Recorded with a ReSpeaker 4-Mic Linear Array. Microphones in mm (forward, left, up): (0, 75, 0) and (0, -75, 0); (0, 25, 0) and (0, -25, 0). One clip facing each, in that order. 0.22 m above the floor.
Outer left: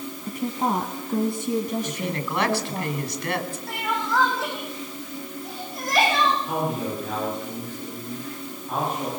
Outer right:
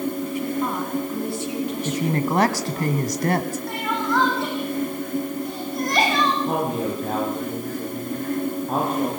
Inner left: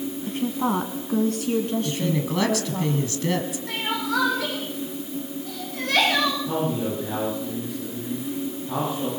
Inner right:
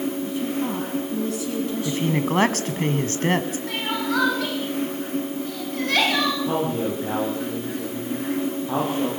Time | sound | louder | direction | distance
0.3 | a woman speaking | outer right 1 dB, inner left 1 dB | 45° left (ahead or behind) | 1.4 m
1.9 | a woman speaking | outer right 7 dB, inner right 3 dB | 45° right (ahead or behind) | 1.3 m
3.7 | crying | outer right 1 dB, even | centre (ahead or behind) | 7 m
6.5 | a man speaking | outer right 3 dB, inner right 2 dB | 40° right (ahead or behind) | 8 m